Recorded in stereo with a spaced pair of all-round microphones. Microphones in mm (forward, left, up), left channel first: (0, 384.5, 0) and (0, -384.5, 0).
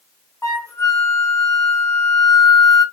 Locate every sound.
0.4 s a flute: 5° left (ahead or behind), 1.1 m